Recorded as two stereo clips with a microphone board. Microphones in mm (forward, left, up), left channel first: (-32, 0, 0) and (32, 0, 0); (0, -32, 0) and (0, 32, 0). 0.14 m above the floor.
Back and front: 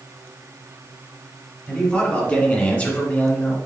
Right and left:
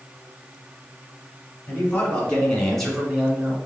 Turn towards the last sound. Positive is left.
turn(degrees=155)